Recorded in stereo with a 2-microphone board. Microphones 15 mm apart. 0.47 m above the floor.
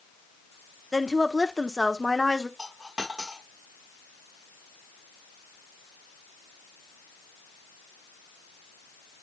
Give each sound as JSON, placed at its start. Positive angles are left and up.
{"t": 0.9, "sound": "a woman speaking", "side_deg": 25, "distance_m": 0.9}
{"t": 2.6, "sound": "a dropped coin", "side_deg": -35, "distance_m": 4.5}